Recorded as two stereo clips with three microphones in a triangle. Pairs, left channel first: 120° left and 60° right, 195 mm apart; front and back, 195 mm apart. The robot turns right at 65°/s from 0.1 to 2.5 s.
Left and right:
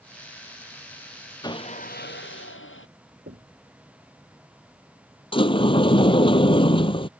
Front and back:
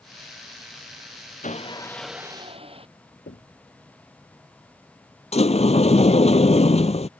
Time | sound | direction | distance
1.4 | sawing | 50° left | ?
3.3 | knocking | 35° right | ?
5.3 | a sliding door | 60° left | ?